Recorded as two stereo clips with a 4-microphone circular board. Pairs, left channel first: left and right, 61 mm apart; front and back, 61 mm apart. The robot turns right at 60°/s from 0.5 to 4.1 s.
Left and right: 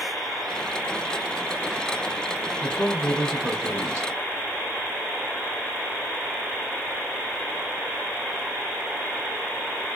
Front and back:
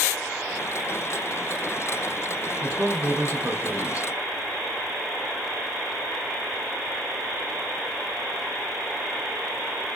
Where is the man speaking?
120° left, 1.4 m; by 4.1 s 155° right, 1.4 m.